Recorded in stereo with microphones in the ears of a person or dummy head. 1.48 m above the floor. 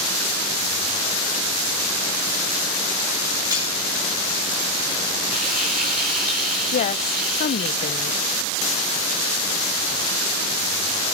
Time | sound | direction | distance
3.5 | cutlery clinking | 15° right (ahead or behind) | 4.5 m
5.3 | frying | 45° right (ahead or behind) | 3 m
6.7 | a woman speaking | 45° left (ahead or behind) | 0.7 m